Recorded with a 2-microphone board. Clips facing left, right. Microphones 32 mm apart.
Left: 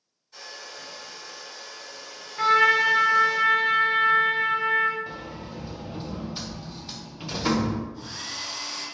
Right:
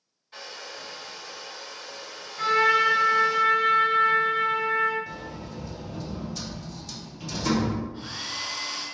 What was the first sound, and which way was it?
A hair dryer, 50° right (ahead or behind).